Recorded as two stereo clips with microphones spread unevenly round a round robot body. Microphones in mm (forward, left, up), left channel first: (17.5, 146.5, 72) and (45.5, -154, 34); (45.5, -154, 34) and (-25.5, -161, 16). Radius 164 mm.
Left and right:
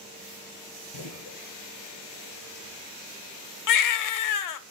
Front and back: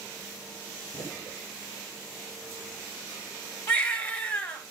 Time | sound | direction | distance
0.9 | a gunshot | 65° left | 4 m
3.7 | a baby crying | 70° left | 0.8 m